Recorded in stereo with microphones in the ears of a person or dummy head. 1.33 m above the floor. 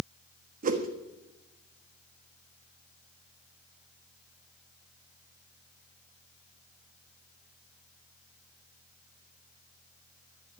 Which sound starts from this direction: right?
A whoosh, at 0.6 s.